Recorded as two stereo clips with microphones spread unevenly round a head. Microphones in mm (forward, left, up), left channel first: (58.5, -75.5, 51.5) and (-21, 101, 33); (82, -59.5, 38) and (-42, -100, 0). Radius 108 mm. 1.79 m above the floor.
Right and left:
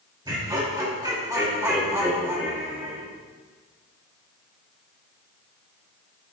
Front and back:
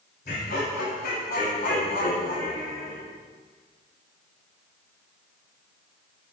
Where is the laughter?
45° left, 6 m; by 3.0 s 30° left, 5.5 m.